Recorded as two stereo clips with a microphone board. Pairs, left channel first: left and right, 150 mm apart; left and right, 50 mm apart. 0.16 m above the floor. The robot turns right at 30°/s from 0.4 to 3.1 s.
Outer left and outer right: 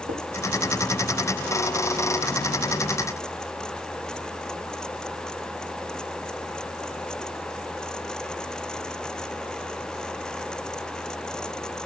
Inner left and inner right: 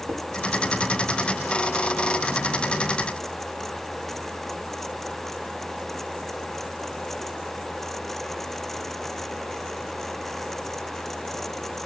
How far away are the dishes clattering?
About 5.5 m.